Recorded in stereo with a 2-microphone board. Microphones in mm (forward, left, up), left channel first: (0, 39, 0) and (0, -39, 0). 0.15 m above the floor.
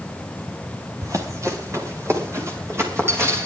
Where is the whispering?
I don't hear whispering.